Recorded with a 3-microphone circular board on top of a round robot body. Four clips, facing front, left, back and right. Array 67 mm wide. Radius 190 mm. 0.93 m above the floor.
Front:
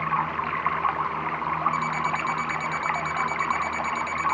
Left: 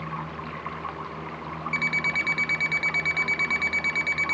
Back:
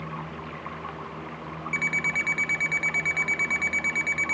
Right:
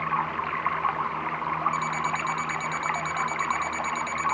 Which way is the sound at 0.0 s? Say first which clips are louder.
Right 7 dB, front 11 dB; 30° right.